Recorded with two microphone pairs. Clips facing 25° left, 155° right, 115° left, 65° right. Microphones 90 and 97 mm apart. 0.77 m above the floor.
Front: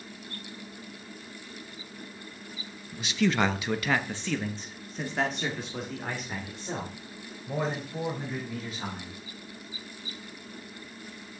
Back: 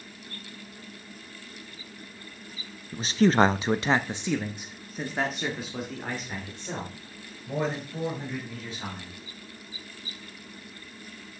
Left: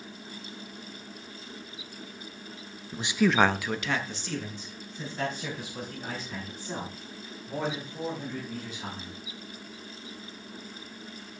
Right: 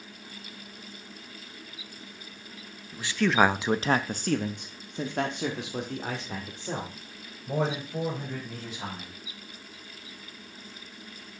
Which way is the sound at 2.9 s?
160° left.